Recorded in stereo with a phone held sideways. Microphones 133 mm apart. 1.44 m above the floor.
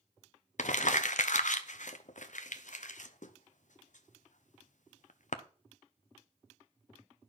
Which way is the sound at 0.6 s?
65° left (ahead or behind).